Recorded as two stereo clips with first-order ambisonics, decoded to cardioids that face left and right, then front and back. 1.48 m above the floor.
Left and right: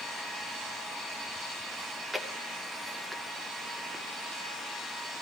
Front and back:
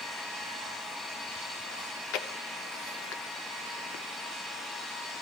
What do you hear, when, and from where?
1.8 s chewing: straight ahead, 1.0 m